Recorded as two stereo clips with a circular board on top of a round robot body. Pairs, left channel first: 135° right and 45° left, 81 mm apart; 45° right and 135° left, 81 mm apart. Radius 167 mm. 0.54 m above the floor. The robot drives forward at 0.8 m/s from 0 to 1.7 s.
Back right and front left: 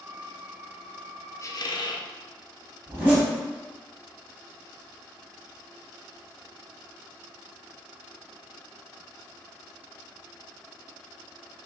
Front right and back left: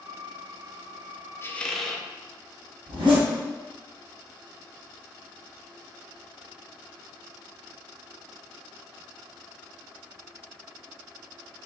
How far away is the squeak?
About 0.5 m.